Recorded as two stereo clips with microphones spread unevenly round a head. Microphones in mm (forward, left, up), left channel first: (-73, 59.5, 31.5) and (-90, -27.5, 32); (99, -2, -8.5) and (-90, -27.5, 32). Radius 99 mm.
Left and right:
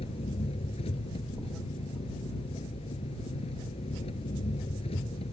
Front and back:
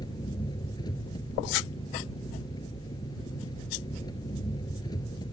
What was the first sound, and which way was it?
An engine running, 80° left.